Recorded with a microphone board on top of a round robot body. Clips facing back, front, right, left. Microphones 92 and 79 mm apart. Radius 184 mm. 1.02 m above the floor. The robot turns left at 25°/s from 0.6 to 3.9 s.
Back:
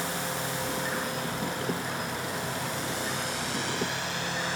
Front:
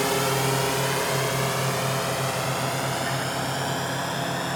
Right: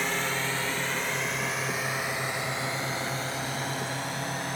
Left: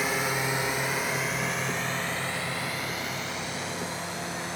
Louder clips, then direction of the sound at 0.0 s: Front 9 dB, left 2 dB; 10° left.